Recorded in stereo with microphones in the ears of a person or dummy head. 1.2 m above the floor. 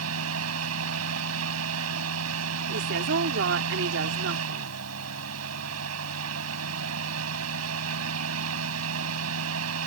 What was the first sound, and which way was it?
A fan, 85° right.